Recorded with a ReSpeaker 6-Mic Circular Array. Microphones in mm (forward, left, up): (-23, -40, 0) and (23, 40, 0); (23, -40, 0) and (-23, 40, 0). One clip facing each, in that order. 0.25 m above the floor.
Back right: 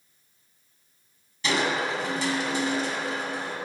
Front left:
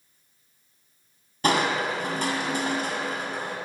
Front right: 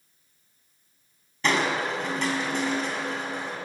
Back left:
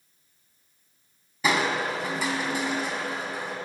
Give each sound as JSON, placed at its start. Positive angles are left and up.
{"t": 1.4, "sound": "crushing", "azimuth_deg": 40, "distance_m": 2.0}